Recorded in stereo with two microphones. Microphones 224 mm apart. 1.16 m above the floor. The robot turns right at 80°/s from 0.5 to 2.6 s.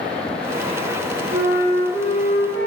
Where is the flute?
30° right, 1.0 m; by 2.7 s 75° left, 1.0 m.